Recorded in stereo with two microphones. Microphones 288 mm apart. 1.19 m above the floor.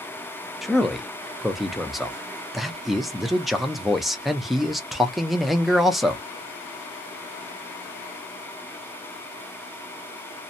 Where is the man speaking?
Centre (ahead or behind), 0.6 m.